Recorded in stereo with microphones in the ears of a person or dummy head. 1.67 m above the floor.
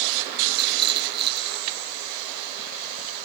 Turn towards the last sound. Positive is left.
turn(degrees=-60)  # may be behind; listen again after turning